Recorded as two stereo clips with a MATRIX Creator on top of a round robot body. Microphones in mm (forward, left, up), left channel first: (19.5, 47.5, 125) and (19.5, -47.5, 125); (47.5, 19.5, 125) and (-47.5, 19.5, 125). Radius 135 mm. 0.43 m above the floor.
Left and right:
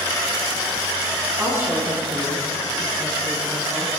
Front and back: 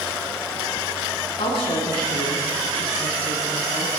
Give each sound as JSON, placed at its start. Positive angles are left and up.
{"t": 1.4, "sound": "a woman speaking", "azimuth_deg": -25, "distance_m": 6.0}